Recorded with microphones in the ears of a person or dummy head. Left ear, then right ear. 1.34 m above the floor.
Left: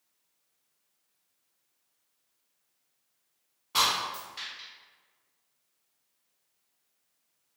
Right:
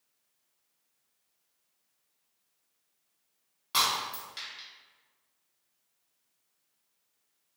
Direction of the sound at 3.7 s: 55° right (ahead or behind).